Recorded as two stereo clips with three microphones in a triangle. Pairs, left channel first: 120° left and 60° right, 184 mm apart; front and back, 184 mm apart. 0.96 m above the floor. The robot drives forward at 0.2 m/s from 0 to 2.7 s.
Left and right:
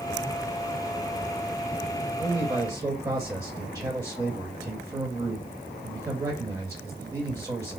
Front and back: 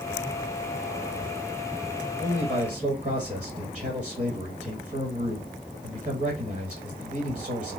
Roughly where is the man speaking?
Behind right.